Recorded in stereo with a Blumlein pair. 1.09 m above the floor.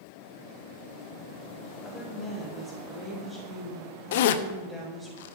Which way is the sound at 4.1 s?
55° left.